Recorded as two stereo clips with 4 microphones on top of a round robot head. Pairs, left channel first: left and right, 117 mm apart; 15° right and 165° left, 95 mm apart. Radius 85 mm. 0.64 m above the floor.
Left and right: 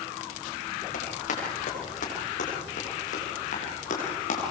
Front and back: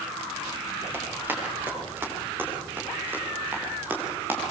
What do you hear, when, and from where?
0.9 s running footsteps: 100° left, 10 m; by 4.4 s 95° left, 7.5 m